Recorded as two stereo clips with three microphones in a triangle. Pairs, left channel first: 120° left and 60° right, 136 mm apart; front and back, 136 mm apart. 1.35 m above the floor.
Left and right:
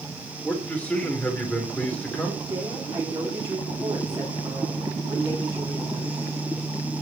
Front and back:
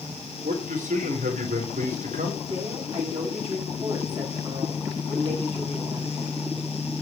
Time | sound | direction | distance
0.4 | a man speaking | 160° right | 3.5 m
2.5 | a woman speaking | 125° right | 9.5 m